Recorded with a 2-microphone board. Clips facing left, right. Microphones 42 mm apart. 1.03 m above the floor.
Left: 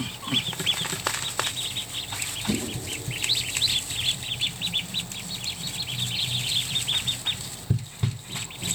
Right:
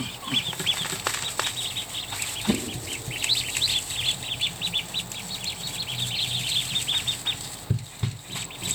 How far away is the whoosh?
About 1.5 m.